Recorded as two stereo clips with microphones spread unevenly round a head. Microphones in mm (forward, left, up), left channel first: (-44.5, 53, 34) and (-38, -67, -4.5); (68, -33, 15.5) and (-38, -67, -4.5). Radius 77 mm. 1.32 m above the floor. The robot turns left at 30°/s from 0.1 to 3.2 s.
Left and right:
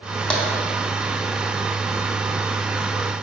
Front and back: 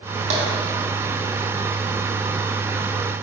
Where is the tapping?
160° left, 1.3 m; by 0.5 s 155° left, 1.3 m.